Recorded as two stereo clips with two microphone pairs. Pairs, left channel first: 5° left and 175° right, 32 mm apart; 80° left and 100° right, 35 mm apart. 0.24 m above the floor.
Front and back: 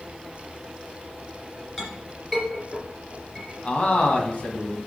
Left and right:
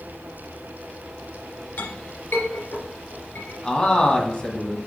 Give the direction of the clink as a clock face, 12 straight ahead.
9 o'clock.